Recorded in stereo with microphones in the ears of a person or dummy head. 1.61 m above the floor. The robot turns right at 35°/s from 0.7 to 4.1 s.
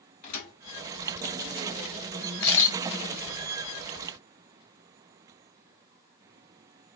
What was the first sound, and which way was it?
A thud, 40° left (ahead or behind).